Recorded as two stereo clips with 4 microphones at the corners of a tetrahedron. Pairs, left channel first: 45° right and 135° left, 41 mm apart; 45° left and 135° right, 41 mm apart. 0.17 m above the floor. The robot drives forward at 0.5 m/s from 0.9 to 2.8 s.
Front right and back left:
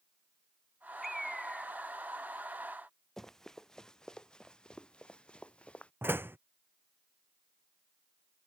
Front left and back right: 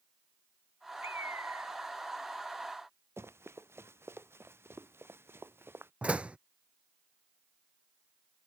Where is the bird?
140° right.